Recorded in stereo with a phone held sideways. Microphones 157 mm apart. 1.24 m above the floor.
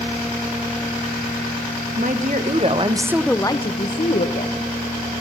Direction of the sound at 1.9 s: 55° right (ahead or behind).